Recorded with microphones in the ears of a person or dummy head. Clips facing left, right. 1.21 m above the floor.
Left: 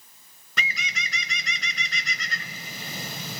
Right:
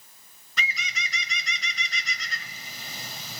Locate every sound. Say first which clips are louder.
0.6 s a bird: left 1 dB; 50° left (ahead or behind), 0.5 m